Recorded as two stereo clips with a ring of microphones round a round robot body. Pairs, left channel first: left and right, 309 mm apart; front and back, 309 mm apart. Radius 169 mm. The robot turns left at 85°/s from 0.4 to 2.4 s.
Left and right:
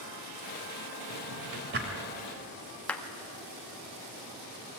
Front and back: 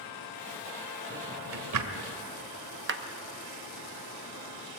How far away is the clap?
About 0.9 m.